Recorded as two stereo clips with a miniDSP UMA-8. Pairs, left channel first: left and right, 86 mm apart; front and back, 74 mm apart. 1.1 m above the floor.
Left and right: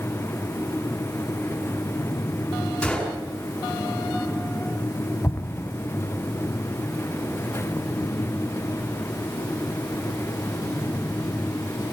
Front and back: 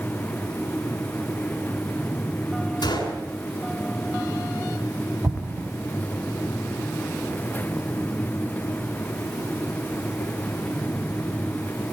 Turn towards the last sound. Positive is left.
turn(degrees=145)